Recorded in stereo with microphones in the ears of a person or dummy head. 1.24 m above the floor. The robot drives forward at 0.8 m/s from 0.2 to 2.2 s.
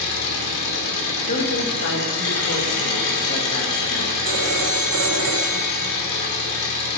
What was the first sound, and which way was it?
An engine running, 85° left.